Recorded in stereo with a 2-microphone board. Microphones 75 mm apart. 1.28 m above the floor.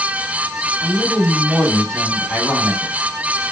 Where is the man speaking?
15° left (ahead or behind), 4.5 m.